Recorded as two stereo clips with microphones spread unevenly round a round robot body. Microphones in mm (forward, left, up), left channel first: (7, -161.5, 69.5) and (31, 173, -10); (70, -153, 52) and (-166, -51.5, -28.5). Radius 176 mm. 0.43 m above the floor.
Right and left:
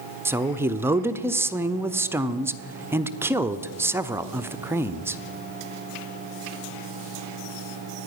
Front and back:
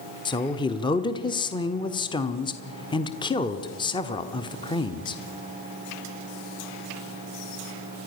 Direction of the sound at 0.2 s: 70° left.